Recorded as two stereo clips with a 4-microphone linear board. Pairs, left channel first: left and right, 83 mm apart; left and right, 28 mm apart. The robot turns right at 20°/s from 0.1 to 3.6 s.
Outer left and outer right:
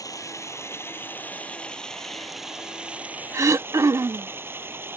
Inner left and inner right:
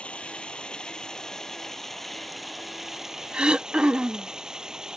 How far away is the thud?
I don't hear a thud.